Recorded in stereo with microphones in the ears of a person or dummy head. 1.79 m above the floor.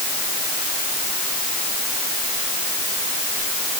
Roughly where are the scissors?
No scissors in this recording.